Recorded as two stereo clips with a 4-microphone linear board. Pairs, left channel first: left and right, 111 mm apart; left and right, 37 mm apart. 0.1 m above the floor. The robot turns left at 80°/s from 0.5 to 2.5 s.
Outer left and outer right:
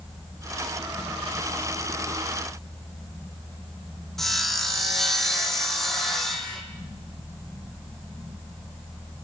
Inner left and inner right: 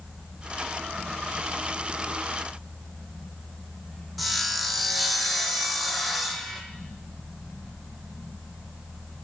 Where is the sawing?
5° left (ahead or behind), 0.8 m.